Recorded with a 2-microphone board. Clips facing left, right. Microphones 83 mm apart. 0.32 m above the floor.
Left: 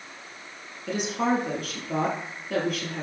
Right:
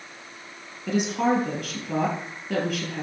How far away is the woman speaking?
About 7 m.